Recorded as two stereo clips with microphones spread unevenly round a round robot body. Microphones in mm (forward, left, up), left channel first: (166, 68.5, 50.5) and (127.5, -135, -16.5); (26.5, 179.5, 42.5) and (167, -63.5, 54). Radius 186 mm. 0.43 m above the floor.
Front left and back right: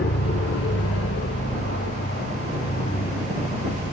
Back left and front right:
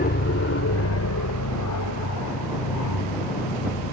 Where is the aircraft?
105° left; by 3.9 s 150° left.